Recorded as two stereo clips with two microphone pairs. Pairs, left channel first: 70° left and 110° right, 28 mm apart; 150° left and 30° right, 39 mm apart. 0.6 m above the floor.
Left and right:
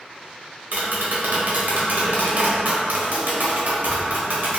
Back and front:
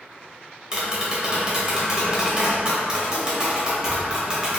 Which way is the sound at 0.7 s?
95° right.